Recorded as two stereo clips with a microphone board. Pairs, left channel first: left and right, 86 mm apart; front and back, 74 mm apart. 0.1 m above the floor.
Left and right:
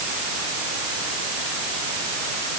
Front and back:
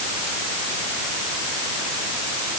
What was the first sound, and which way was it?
Only background noise.